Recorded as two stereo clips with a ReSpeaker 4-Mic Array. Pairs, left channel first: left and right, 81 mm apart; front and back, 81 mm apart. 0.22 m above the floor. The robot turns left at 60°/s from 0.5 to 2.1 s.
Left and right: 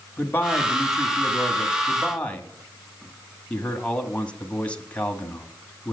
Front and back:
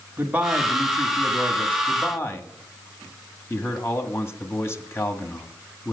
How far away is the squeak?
No squeak in this recording.